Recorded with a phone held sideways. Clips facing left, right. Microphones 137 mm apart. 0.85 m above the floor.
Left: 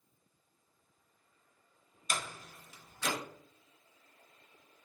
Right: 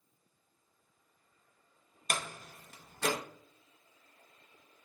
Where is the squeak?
I don't hear a squeak.